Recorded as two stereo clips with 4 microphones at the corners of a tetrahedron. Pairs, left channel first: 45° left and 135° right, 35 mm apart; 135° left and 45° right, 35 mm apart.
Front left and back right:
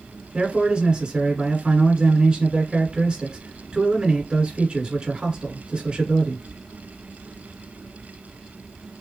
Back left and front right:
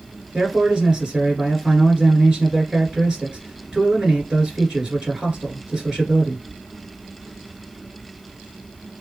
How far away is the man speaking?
About 1.8 m.